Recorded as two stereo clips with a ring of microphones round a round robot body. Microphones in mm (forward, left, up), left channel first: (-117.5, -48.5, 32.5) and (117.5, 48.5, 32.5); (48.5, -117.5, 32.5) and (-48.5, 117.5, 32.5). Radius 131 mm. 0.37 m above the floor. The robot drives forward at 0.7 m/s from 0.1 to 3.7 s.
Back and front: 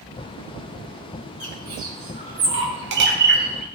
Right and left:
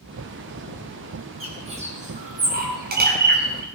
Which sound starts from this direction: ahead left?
A bird, at 1.4 s.